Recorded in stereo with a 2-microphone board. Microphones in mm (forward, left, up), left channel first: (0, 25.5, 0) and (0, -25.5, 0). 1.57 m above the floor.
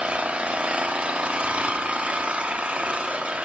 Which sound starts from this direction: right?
An engine running, at 0.0 s.